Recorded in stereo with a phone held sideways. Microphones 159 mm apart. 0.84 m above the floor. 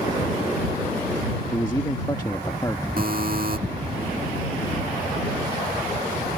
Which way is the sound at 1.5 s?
25° left (ahead or behind).